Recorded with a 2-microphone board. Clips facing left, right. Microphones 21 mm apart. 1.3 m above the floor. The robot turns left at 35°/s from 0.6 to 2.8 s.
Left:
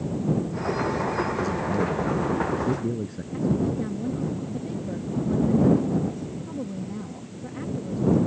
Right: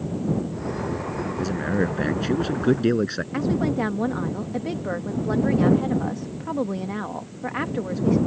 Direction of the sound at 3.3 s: 75° right (ahead or behind).